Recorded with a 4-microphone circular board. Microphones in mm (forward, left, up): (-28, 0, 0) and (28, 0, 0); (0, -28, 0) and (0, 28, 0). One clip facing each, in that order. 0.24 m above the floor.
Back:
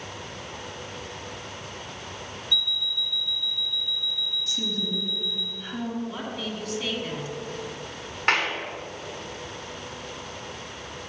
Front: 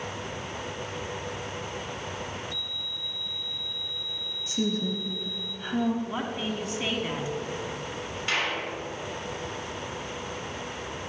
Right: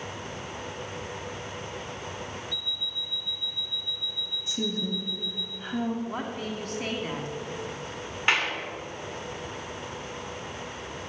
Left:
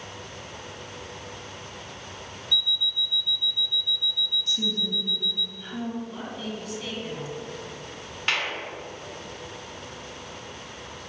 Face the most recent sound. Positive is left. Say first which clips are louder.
# back 5 dB, right 2 dB
turn(degrees=-160)